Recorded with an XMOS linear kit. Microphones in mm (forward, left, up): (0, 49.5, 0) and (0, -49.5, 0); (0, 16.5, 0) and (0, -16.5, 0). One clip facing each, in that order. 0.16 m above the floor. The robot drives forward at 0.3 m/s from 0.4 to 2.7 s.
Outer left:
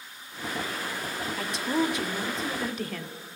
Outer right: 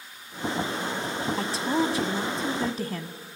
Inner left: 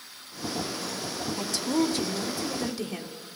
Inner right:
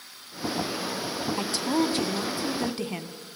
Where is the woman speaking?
35° right (ahead or behind), 1.6 m.